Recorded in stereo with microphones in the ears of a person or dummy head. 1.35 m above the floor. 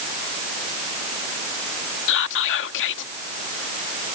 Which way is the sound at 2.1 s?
65° left (ahead or behind).